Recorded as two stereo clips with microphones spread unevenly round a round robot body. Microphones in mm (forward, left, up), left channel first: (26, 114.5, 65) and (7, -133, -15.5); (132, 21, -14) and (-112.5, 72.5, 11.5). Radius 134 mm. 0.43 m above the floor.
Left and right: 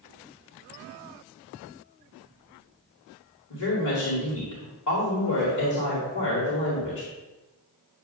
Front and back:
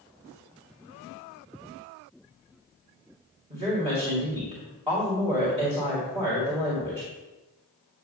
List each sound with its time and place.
3.5 s a woman speaking: 100° left, 2 m